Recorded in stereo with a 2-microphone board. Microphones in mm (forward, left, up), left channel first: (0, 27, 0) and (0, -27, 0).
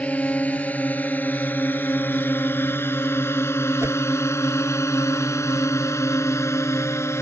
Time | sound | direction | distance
0.0 | a drone | 30° left (ahead or behind) | ?
3.8 | a whoosh | 55° right (ahead or behind) | ?